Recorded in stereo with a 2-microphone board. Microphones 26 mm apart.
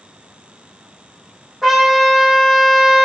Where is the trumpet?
15° right (ahead or behind), 4.5 m.